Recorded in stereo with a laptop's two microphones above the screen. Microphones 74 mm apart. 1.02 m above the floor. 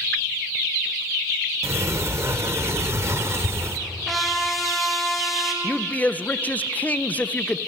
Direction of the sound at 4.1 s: Centre (ahead or behind).